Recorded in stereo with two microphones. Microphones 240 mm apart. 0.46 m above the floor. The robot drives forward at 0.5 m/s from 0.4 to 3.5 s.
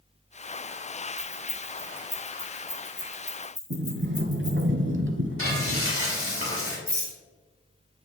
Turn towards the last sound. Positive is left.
turn(degrees=-10)  # may be behind; listen again after turning